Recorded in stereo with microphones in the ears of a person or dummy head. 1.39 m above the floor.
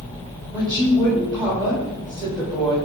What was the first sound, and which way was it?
A woman speaking, 15° right (ahead or behind).